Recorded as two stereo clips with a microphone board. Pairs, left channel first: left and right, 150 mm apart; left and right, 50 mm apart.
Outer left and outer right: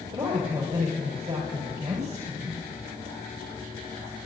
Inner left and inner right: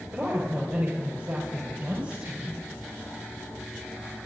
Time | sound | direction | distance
0.1 | a woman speaking | 40° right (ahead or behind) | 3.5 m